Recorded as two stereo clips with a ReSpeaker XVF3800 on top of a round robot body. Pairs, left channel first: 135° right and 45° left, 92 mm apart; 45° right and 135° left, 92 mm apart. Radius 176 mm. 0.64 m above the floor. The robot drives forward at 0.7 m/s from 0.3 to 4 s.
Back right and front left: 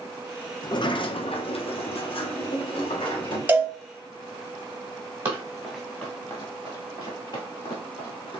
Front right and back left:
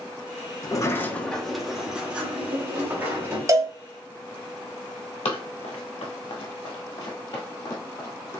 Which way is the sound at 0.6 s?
90° right.